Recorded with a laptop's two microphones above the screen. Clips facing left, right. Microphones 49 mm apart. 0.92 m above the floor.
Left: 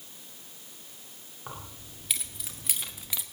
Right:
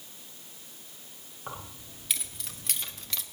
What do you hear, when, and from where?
1.5 s keys jangling: centre (ahead or behind), 2 m; by 3.2 s 15° left (ahead or behind), 0.8 m